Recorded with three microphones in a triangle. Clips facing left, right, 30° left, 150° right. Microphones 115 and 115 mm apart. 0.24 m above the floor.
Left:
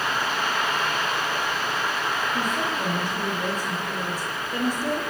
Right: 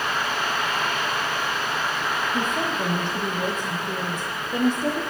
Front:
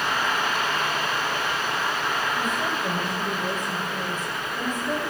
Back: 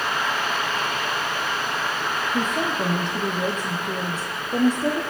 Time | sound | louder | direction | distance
2.3 | a woman speaking | right 1 dB, back 3 dB | 155° right | 7 m